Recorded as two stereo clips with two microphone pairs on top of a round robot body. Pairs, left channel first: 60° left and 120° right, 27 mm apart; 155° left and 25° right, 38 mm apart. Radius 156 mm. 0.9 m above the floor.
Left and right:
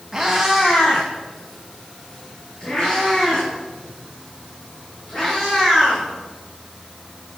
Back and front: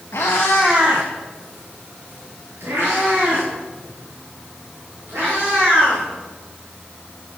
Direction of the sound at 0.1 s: 160° left.